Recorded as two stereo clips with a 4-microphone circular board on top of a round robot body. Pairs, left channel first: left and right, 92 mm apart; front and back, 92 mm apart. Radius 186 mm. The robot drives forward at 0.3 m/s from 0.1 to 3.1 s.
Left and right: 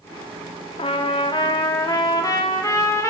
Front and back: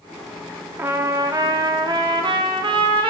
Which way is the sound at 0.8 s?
110° left.